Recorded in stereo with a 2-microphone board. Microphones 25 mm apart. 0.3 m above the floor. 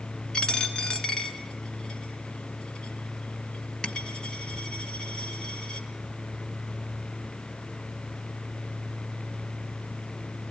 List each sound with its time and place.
0.3 s a dropped coin: 40° left (ahead or behind), 1.3 m